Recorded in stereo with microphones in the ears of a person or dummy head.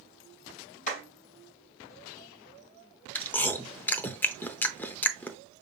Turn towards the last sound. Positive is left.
turn(degrees=15)  # may be behind; listen again after turning